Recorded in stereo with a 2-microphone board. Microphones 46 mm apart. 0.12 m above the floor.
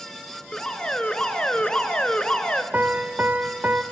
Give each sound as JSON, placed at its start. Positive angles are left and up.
{"t": 0.5, "sound": "an alarm", "side_deg": 20, "distance_m": 1.4}
{"t": 2.7, "sound": "a piano", "side_deg": -35, "distance_m": 2.0}